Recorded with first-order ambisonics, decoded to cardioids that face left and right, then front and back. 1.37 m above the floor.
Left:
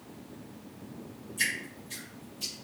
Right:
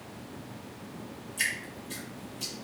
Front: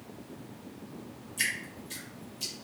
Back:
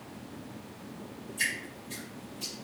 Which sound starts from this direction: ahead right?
Dripping, at 1.4 s.